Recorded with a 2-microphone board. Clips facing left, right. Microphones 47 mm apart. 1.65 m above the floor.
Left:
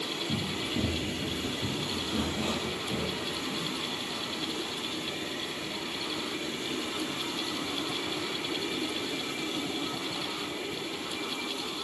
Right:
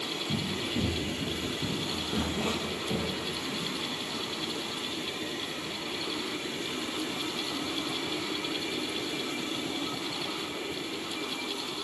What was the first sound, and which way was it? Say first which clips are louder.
Running footsteps: right 1 dB; 5° left (ahead or behind).